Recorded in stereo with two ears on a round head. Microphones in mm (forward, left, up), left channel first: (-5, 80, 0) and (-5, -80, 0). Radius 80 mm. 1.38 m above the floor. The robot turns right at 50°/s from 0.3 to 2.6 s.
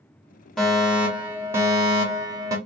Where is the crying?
I don't hear crying.